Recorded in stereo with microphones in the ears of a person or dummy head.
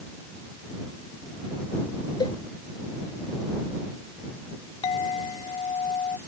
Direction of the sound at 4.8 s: 25° left (ahead or behind).